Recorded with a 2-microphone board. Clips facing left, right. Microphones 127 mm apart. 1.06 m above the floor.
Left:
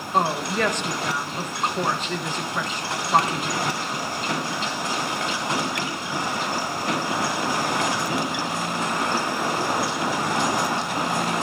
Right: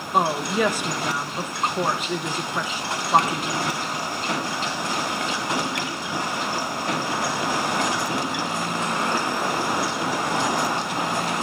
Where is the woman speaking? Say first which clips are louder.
Right 1 dB; 10° right (ahead or behind), 0.9 m.